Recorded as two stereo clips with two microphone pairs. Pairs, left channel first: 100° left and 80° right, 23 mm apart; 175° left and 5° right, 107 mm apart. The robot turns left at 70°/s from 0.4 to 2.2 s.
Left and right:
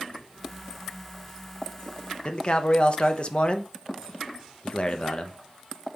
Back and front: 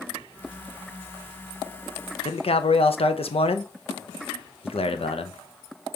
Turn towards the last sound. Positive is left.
turn(degrees=150)